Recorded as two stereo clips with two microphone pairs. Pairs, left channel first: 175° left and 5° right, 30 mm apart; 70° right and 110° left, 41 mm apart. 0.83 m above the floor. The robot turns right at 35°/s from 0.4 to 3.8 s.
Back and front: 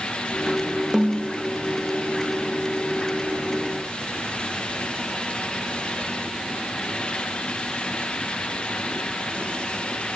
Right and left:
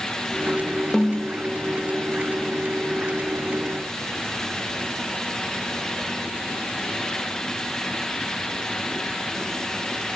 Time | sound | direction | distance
0.9 | a snare drum | 80° right | 0.6 m